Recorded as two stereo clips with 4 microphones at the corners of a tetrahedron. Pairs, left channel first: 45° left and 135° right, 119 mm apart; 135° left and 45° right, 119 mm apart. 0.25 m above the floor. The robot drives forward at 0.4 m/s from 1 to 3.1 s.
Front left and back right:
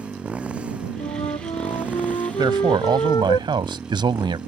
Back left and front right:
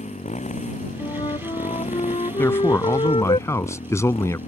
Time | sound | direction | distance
0.0 | a motorcycle | 145° left | ?
1.0 | a flute | 85° left | ?
2.4 | a man speaking | 165° right | ?